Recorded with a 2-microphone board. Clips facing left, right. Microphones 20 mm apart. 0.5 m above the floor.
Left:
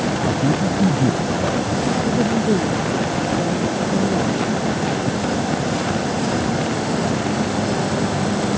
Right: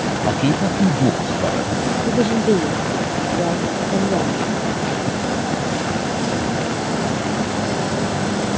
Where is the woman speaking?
80° right.